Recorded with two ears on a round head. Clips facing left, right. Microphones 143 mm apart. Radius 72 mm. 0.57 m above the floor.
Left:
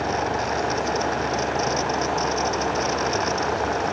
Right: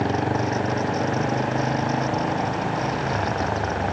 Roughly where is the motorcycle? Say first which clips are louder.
Right 1 dB; right.